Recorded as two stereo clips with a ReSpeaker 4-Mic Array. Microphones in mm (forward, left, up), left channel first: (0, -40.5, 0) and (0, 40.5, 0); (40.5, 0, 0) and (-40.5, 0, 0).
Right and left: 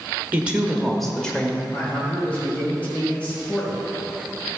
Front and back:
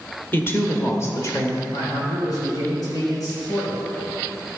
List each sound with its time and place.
0.3 s a woman speaking: 35° left, 1.3 m; by 1.6 s 25° right, 1.5 m
1.7 s a man speaking: 20° right, 2.5 m